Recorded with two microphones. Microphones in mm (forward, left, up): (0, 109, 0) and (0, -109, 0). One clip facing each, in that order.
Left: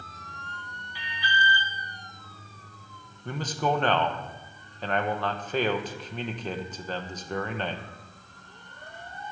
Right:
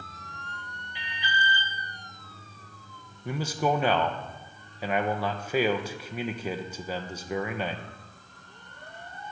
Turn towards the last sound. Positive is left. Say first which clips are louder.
# right 1 dB
turn(degrees=-10)  # may be behind; listen again after turning